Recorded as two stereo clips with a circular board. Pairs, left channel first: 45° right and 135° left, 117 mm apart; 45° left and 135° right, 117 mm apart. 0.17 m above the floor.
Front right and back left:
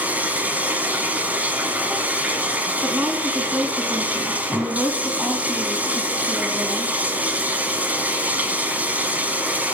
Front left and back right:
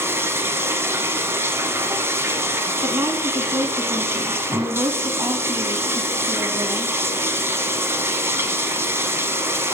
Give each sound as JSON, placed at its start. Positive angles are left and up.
{"t": 0.0, "sound": "running water", "azimuth_deg": -170, "distance_m": 1.2}
{"t": 2.8, "sound": "a woman speaking", "azimuth_deg": -160, "distance_m": 1.1}